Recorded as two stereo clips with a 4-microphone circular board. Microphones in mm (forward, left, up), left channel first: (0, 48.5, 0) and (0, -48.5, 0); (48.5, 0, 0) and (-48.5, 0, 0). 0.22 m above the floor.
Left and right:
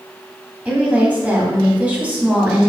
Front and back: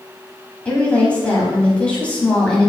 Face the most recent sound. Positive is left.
turn(degrees=-50)